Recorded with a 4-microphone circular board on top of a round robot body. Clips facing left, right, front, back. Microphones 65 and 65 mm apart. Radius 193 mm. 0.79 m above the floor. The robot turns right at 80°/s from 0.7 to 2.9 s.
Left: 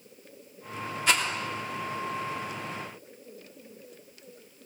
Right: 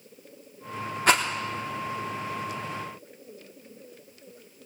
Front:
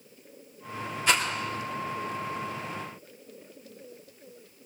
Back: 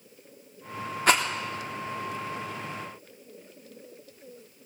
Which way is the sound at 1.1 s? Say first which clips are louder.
Right 4 dB, back 3 dB; 135° right.